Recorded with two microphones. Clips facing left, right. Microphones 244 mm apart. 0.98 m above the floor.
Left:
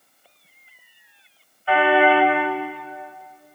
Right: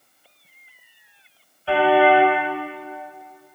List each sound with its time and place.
1.7 s a car horn: 35° right (ahead or behind), 3 m